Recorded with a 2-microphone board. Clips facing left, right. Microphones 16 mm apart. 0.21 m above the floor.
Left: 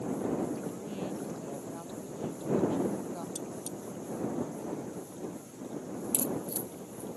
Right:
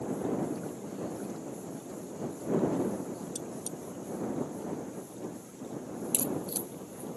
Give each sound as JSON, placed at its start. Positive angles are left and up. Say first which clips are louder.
{"t": 0.5, "sound": "a woman speaking", "louder": "left 1 dB", "side_deg": 55}
{"t": 3.4, "sound": "cutlery clinking", "louder": "even", "side_deg": -20}
{"t": 6.1, "sound": "a crack", "louder": "right 1 dB", "side_deg": -65}